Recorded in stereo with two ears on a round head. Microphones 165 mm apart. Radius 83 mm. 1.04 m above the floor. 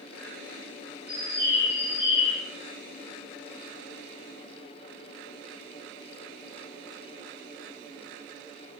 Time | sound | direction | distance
1.1 | a bird | 60° left (ahead or behind) | 1.2 m